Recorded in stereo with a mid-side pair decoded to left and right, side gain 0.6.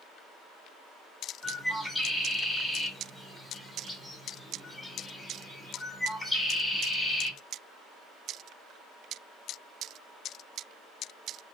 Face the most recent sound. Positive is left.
turn(degrees=10)